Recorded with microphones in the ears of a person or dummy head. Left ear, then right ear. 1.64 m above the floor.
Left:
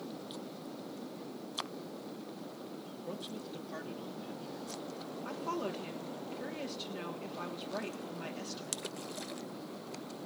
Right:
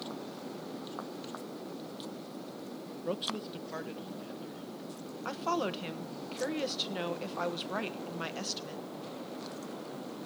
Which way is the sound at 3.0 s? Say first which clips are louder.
Right 9 dB; 50° right (ahead or behind).